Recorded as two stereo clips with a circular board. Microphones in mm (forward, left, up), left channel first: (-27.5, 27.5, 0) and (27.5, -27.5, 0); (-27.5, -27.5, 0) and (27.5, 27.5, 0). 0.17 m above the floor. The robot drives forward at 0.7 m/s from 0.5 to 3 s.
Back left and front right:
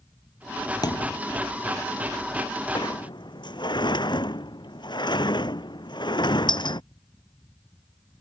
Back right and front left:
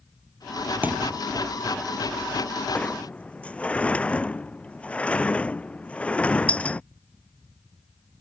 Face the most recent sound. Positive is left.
turn(degrees=150)